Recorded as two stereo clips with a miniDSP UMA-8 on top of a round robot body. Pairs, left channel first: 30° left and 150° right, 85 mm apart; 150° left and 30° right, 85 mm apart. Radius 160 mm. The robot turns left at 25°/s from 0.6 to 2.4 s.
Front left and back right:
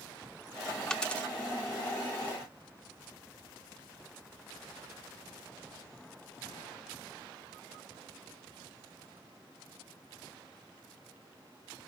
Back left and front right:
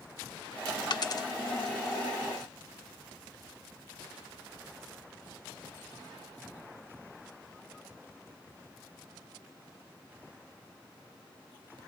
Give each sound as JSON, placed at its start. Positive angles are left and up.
{"t": 0.9, "sound": "a dropped coin", "azimuth_deg": 110, "distance_m": 0.6}